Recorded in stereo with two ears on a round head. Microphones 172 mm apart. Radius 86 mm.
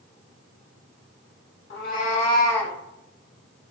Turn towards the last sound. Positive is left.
turn(degrees=0)  # may be behind; listen again after turning